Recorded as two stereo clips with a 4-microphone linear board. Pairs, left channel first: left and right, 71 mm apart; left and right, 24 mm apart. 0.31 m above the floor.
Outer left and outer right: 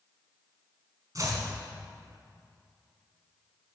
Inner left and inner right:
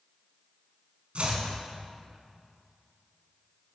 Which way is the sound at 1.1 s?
50° right (ahead or behind).